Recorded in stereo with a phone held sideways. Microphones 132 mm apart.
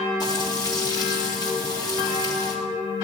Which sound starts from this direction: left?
Frying, at 0.2 s.